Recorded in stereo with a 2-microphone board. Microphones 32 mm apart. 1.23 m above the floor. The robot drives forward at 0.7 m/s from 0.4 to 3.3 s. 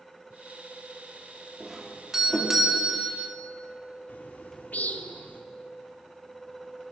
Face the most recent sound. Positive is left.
turn(degrees=60)  # may be behind; listen again after turning